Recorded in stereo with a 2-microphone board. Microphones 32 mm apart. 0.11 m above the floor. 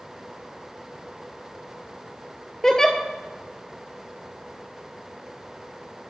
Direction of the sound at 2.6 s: 15° left (ahead or behind).